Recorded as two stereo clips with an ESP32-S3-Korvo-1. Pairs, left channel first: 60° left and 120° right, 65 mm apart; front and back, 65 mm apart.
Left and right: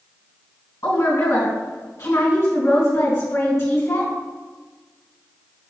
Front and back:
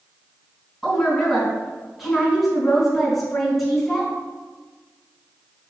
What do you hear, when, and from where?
0.8 s a woman speaking: 90° left, 3 m